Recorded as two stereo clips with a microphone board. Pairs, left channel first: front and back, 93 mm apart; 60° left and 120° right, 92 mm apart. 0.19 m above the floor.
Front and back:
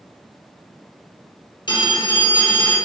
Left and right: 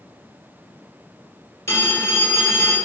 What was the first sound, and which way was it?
A phone ringing, straight ahead.